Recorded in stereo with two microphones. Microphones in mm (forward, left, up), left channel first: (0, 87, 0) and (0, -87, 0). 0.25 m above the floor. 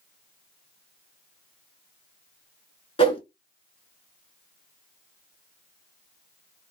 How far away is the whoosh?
About 0.9 m.